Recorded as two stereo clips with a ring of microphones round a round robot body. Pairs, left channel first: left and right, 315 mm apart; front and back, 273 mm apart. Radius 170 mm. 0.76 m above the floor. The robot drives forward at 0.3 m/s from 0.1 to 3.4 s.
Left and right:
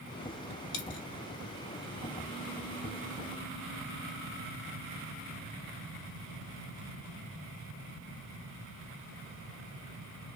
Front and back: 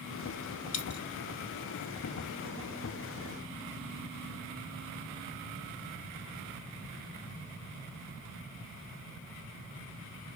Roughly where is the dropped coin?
Ahead left.